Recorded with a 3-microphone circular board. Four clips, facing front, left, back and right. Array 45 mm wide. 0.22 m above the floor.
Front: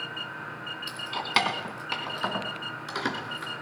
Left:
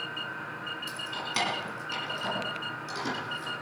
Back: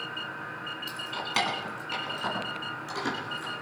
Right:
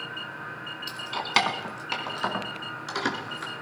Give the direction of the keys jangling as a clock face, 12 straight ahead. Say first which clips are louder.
Right 10 dB, front 5 dB; 2 o'clock.